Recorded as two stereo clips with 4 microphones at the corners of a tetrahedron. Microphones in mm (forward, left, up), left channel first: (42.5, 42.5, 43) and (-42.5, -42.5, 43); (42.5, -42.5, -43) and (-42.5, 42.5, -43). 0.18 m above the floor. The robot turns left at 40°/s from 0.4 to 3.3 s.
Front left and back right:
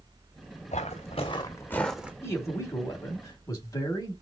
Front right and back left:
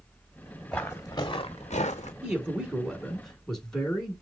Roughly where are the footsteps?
Ahead left.